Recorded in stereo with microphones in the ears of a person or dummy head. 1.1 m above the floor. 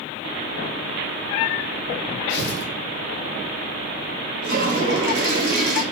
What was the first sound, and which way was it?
Tearing paper, 60° left (ahead or behind).